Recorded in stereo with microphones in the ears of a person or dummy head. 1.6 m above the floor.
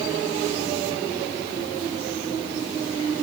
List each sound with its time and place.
Only background noise.